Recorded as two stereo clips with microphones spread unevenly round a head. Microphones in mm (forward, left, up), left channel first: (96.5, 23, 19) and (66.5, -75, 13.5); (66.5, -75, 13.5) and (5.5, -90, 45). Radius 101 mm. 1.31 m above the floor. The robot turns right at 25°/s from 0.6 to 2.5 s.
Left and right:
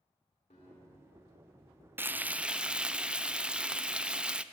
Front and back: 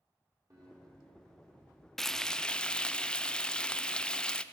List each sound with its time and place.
0.5 s a guitar: 125° left, 3.5 m; by 1.9 s 155° left, 3.5 m
2.0 s frying: 45° right, 0.6 m; by 4.4 s 30° right, 0.6 m